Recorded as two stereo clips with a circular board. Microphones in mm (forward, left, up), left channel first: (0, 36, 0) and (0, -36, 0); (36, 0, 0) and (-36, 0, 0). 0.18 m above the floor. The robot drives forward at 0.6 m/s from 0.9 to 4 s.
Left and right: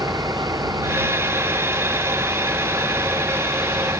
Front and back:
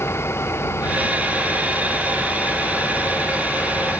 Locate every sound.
0.0 s an engine running: 55° right